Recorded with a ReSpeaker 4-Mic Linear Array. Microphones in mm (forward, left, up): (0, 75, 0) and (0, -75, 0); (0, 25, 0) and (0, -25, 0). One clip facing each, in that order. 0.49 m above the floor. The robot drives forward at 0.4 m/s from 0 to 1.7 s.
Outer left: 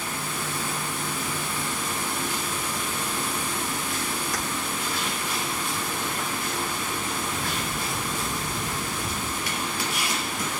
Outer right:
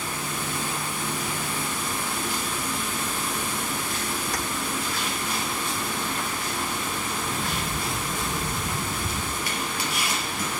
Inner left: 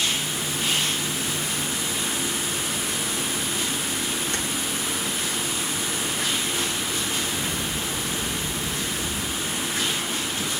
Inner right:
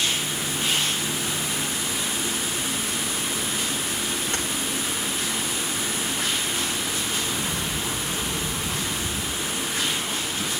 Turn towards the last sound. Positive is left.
turn(degrees=-60)  # may be behind; listen again after turning